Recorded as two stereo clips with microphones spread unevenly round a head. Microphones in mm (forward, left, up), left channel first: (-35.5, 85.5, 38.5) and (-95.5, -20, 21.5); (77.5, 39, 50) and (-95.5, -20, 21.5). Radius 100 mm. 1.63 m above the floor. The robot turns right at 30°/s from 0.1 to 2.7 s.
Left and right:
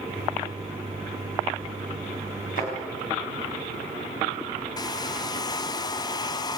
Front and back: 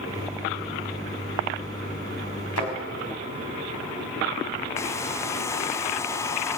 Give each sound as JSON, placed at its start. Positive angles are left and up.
{"t": 2.6, "sound": "a thud", "azimuth_deg": 10, "distance_m": 5.0}
{"t": 4.8, "sound": "a hair dryer", "azimuth_deg": 75, "distance_m": 0.5}